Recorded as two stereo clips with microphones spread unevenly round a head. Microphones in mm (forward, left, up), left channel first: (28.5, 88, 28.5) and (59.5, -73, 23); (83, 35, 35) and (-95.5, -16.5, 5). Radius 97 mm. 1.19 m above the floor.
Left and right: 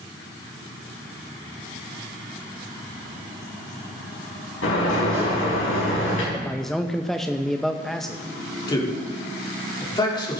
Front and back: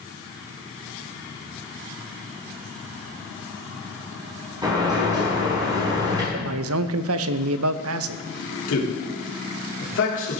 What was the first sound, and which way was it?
A sliding door, 125° left.